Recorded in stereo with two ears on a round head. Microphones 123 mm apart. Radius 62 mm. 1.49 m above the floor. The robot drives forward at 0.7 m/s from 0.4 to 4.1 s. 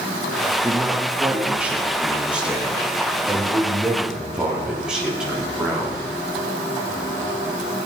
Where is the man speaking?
10° right (ahead or behind), 2.5 m; by 6.0 s 5° right (ahead or behind), 4.5 m.